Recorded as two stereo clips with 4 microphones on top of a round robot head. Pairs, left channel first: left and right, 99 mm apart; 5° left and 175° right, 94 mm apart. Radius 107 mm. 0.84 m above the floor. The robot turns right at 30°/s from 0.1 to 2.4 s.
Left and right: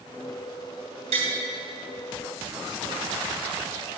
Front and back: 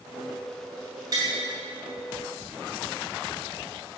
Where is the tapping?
115° right, 2.5 m; by 1.3 s 110° right, 2.5 m.